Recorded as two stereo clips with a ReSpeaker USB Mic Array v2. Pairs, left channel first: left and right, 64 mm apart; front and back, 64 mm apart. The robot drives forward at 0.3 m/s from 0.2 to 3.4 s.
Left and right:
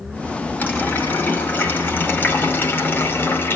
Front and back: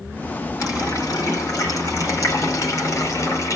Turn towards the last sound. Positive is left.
turn(degrees=35)